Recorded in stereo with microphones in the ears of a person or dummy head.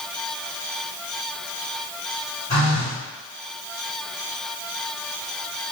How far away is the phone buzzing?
About 1.5 m.